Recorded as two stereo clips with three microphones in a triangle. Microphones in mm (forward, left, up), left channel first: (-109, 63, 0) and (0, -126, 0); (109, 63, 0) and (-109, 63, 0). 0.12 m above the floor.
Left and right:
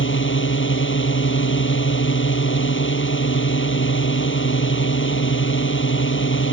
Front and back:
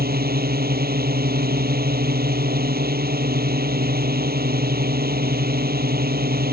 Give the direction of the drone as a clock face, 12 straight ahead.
7 o'clock.